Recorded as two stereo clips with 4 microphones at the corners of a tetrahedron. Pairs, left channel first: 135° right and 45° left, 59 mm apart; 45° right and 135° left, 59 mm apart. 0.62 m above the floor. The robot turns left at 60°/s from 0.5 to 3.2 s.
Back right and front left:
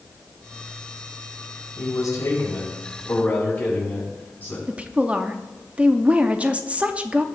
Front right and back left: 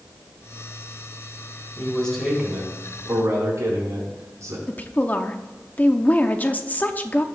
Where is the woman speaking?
10° right, 0.7 m.